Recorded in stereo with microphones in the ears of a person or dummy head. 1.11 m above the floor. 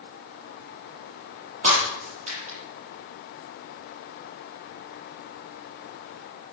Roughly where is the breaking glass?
Right.